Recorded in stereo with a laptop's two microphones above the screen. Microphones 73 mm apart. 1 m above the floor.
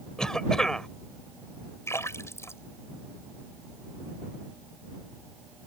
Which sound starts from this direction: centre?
A cough, at 0.2 s.